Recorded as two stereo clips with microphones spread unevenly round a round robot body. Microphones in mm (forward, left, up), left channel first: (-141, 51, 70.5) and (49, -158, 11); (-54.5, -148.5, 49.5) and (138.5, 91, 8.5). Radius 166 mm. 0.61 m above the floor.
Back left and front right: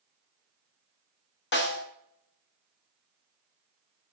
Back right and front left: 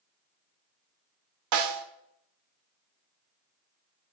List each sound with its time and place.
1.5 s a snare drum: 75° left, 1.5 m